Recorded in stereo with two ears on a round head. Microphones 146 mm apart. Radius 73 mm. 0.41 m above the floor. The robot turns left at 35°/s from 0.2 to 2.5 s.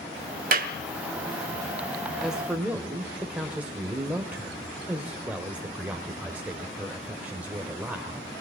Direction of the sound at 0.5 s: 55° right (ahead or behind).